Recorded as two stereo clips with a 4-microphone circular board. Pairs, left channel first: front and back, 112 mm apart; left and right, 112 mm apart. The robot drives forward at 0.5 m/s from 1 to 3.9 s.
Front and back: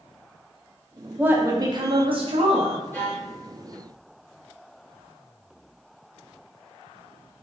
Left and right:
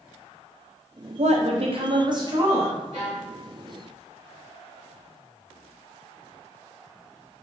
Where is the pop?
I don't hear a pop.